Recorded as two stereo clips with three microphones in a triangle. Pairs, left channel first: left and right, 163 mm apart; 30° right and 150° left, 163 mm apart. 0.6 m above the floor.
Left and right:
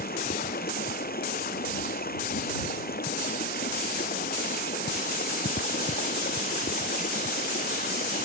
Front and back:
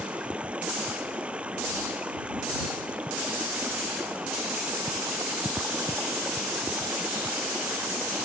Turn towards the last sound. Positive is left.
turn(degrees=65)